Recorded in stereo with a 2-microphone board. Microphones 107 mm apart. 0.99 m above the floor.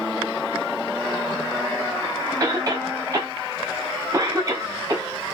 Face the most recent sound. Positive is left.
turn(degrees=-35)  # may be behind; listen again after turning